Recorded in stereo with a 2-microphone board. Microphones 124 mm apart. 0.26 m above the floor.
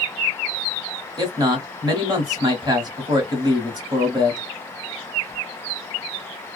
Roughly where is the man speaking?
Right.